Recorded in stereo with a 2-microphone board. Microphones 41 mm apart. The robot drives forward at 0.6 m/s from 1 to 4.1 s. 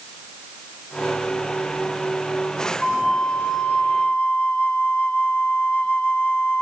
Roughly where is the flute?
Centre.